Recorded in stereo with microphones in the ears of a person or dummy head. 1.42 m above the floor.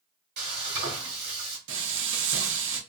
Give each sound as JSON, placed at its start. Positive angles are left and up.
{"t": 0.4, "sound": "frying", "side_deg": -45, "distance_m": 1.8}
{"t": 1.7, "sound": "frying", "side_deg": -75, "distance_m": 0.8}